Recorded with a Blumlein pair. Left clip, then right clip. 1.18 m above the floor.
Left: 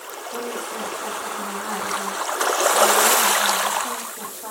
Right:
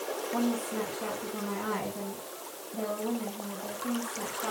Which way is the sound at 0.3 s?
20° left.